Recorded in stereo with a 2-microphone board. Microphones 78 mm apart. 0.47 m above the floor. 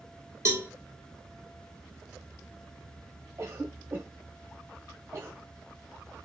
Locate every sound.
0.5 s a cowbell: 35° right (ahead or behind), 0.6 m
3.4 s a cough: 35° right (ahead or behind), 1.0 m